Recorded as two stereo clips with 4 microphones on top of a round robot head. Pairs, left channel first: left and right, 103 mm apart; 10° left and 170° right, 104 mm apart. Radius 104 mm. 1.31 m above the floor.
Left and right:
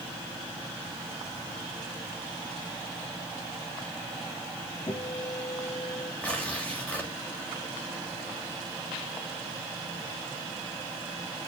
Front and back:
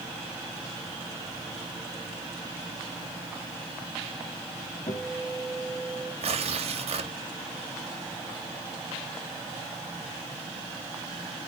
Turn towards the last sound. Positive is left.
turn(degrees=170)